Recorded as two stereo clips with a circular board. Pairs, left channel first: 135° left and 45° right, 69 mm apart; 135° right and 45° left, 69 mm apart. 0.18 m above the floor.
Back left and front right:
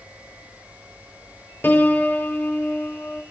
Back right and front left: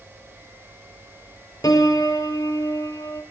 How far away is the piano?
About 0.6 m.